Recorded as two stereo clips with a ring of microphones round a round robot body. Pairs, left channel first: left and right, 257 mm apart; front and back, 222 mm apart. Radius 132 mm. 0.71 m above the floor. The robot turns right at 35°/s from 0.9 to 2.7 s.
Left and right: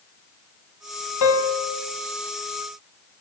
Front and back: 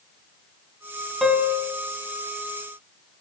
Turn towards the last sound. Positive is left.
turn(degrees=145)